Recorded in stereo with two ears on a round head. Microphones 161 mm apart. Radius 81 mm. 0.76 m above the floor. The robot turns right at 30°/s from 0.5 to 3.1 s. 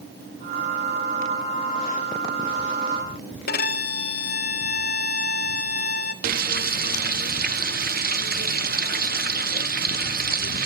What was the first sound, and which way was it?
A violin, 55° left (ahead or behind).